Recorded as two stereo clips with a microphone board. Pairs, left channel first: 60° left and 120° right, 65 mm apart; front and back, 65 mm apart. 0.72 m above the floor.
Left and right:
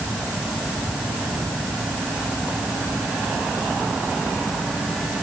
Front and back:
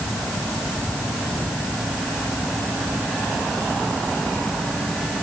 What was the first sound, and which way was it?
Only background noise.